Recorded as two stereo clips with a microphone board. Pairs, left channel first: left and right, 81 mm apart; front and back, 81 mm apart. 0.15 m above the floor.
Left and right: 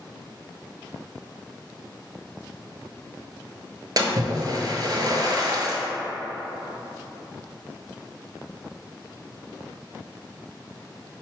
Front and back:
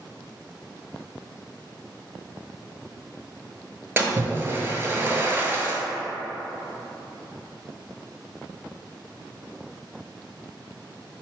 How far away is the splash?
About 0.7 m.